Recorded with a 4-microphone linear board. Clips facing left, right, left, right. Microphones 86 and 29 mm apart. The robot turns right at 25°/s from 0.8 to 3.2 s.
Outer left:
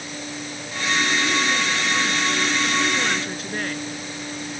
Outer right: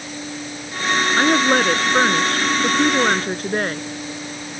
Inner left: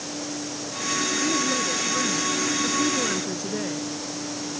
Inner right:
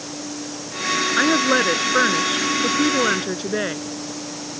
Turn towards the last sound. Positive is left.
turn(degrees=-45)